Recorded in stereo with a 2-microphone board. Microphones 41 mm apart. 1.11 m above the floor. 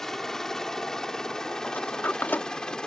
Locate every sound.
0.0 s a helicopter: 10° left (ahead or behind); by 2.9 s 20° left (ahead or behind)
1.6 s a sliding door: 50° left (ahead or behind)